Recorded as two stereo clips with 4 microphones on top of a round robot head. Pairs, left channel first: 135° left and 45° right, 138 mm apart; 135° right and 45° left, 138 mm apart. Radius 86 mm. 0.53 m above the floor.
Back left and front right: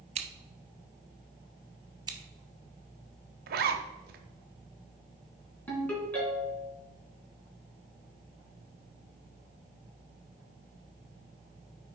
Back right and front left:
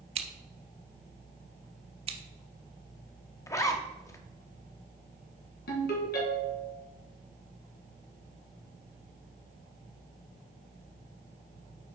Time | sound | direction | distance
0.1 | scissors | straight ahead | 0.8 m
2.1 | scissors | 10° left | 1.1 m
3.5 | a zipper | 65° right | 0.9 m
5.7 | a ringtone | 145° right | 2.5 m